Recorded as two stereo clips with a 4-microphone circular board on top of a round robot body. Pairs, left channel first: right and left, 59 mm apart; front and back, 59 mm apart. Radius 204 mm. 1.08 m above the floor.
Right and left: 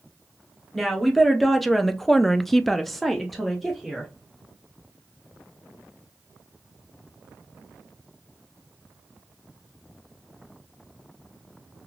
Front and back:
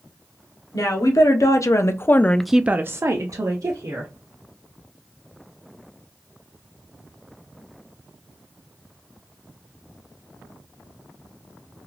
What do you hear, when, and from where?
0.7 s a woman speaking: straight ahead, 1.0 m; by 4.1 s straight behind, 1.0 m